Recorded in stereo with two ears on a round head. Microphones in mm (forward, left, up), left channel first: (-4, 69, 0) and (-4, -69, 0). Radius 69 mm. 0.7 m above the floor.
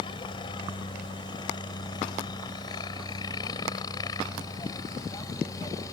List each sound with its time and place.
0.0 s a helicopter: 30° left (ahead or behind); by 6.0 s 20° left (ahead or behind)